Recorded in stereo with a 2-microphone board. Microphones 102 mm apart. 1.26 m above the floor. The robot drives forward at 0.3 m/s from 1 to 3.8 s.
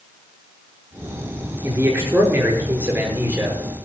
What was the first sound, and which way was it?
A man speaking, 20° right (ahead or behind).